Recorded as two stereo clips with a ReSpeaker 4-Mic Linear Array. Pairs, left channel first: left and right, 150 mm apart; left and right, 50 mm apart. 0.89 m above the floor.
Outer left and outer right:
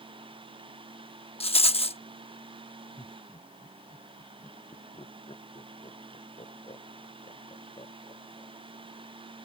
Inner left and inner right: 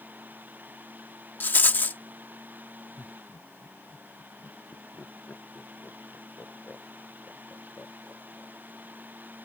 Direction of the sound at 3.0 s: 40° left (ahead or behind).